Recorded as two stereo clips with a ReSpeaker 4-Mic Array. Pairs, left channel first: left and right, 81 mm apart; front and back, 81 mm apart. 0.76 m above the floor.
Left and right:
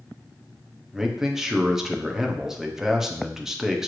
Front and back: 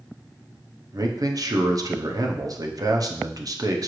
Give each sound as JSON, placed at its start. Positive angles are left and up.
{"t": 0.9, "sound": "a man speaking", "azimuth_deg": -170, "distance_m": 0.6}